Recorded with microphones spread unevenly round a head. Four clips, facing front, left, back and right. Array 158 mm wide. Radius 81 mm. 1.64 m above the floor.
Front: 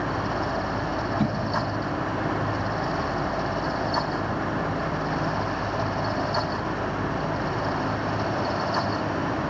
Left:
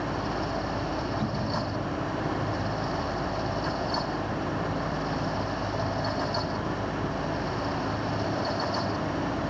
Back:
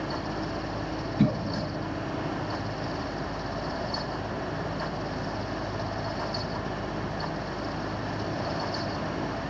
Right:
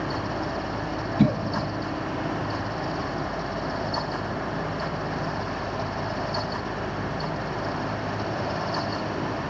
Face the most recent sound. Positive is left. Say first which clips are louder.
# right 6 dB, front 1 dB
turn(degrees=-100)